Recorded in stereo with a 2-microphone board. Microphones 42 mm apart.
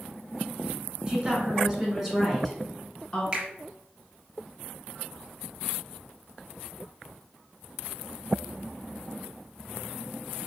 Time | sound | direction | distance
1.1 | a woman speaking | 20° right (ahead or behind) | 1.6 m
3.3 | a finger snap | 20° right (ahead or behind) | 1.4 m